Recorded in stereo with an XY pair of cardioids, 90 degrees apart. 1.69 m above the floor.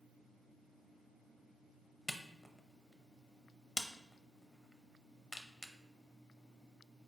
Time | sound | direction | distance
2.1 | a camera shutter | 15° left | 0.6 m